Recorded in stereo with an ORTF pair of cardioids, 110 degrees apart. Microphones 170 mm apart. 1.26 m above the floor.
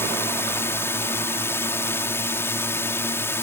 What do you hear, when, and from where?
0.0 s a drone: 15° left